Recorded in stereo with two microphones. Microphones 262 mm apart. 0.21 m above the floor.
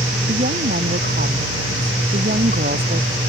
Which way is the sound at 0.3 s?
35° right (ahead or behind).